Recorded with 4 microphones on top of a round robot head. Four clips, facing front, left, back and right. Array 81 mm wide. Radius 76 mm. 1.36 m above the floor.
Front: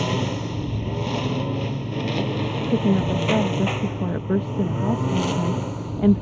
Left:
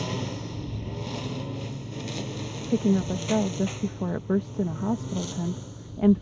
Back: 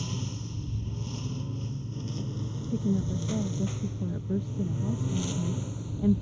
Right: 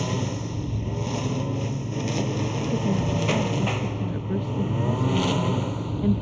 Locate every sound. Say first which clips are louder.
0.0 s a lawn mower: right 4 dB, front 13 dB; 10° right; by 6.2 s 50° right
2.7 s a woman speaking: left 4 dB, front 8 dB; 30° left